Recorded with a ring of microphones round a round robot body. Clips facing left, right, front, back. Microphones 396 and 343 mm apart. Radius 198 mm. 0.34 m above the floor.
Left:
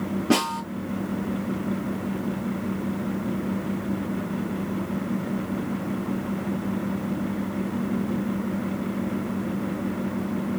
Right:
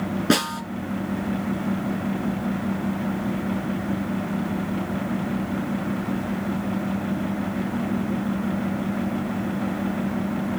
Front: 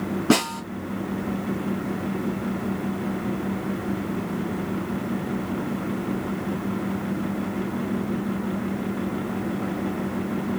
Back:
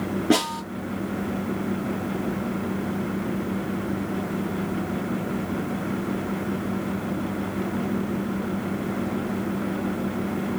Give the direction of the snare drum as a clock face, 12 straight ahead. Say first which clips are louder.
Even, front 1 dB; 2 o'clock.